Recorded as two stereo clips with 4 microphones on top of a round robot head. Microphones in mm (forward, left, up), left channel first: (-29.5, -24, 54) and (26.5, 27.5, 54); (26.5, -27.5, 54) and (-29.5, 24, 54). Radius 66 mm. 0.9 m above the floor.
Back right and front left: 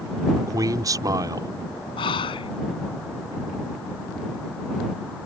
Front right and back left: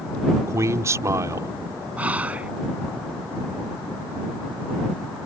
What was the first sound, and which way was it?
A man speaking, 85° left.